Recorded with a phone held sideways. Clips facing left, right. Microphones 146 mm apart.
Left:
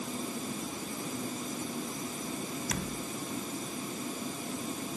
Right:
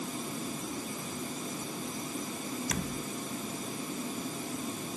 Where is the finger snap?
I don't hear a finger snap.